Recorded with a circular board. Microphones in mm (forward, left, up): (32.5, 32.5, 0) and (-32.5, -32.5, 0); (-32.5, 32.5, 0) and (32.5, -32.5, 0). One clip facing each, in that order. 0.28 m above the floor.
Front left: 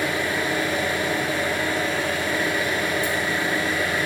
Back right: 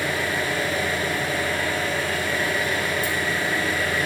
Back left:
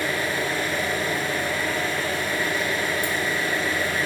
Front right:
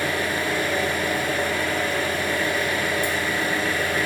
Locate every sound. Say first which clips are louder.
0.0 s an engine running: front left 1 dB, front right 1 dB; 25° right, 1.4 m